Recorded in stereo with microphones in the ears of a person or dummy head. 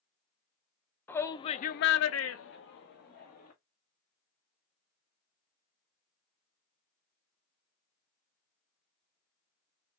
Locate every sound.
1.1 s a shout: 15° left (ahead or behind), 0.9 m; by 3.5 s 45° left (ahead or behind), 1.7 m